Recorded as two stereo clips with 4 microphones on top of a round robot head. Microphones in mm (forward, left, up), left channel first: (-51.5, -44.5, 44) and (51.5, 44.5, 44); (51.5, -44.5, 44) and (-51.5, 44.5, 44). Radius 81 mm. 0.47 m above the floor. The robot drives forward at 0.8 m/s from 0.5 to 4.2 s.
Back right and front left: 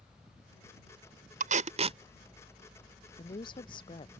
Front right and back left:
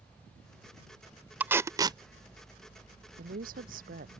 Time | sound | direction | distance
1.4 | tape being pulled | 60° left | ?
3.2 | a woman speaking | 165° left | ?